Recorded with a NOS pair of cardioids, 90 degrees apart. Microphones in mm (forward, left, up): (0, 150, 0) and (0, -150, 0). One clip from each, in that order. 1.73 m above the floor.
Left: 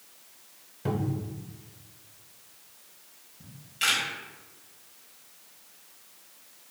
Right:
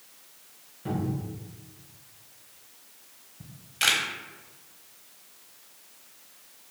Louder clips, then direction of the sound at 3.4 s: Right 3 dB; 40° right.